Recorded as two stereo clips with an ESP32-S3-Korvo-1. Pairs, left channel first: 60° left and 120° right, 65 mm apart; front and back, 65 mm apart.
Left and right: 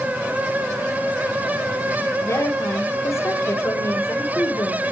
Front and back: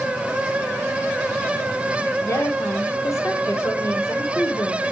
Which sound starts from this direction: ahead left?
A woman speaking, at 2.2 s.